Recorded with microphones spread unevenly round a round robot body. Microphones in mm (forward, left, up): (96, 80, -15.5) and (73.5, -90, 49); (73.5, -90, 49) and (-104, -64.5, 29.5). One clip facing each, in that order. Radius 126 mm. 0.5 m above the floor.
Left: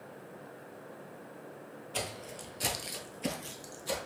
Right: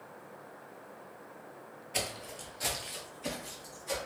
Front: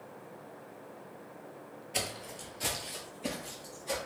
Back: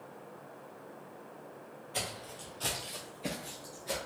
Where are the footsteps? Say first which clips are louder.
Right 1 dB, front 2 dB; 55° right, 0.6 m; by 4.0 s 90° left, 0.9 m.